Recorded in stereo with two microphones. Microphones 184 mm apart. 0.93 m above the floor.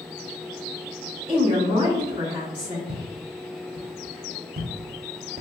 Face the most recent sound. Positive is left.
turn(degrees=-40)  # may be behind; listen again after turning